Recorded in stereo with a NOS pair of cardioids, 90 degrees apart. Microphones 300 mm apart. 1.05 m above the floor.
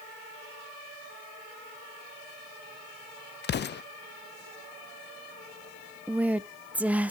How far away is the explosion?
About 0.7 m.